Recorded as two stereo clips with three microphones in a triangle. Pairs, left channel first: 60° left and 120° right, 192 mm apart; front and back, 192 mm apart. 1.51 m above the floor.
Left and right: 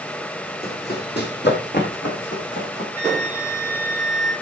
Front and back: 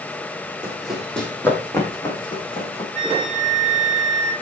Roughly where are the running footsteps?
Left.